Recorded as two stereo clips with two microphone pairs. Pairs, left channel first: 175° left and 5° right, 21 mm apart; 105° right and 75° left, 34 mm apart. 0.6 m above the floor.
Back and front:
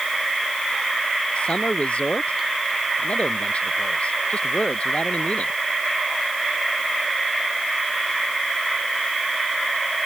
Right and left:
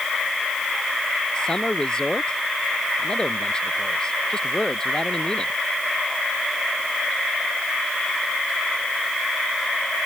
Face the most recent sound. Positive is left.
turn(degrees=-175)